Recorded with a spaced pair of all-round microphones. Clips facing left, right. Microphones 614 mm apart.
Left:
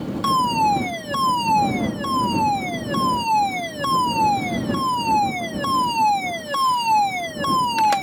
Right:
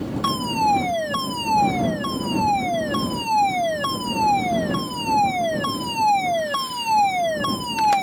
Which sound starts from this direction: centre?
A fire alarm, at 0.2 s.